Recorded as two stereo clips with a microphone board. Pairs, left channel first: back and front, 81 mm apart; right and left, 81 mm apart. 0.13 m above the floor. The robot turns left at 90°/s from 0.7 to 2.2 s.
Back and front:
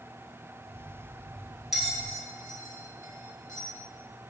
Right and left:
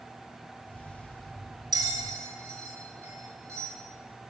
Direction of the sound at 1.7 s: 85° left.